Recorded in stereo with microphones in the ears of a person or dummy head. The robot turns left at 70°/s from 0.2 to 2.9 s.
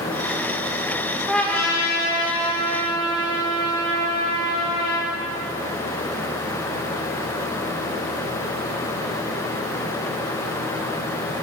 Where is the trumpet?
Centre (ahead or behind), 1.4 m; by 5.1 s 25° left (ahead or behind), 1.4 m.